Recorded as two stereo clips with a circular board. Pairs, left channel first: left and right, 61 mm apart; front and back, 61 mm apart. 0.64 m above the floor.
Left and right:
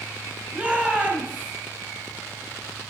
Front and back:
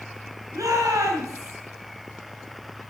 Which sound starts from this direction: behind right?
A shout, at 0.5 s.